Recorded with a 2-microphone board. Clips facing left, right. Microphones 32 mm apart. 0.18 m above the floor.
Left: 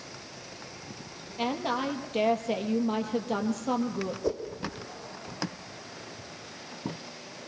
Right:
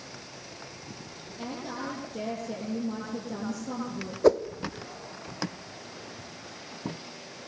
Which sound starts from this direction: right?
A whoosh, at 4.2 s.